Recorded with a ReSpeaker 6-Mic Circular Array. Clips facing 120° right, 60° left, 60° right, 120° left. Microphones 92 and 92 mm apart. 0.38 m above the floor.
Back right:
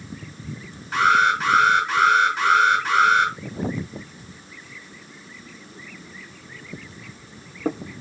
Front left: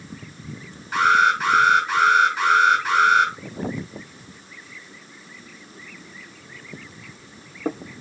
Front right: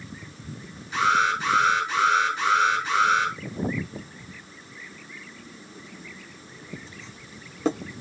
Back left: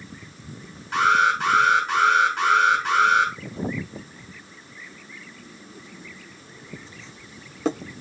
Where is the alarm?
150° left, 6 m.